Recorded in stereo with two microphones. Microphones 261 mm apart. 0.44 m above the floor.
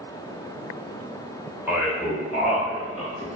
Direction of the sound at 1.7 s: 5° right (ahead or behind).